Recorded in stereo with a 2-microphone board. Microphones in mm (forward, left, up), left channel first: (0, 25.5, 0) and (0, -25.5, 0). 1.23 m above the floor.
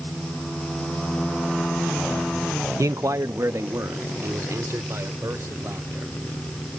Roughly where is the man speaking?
Right.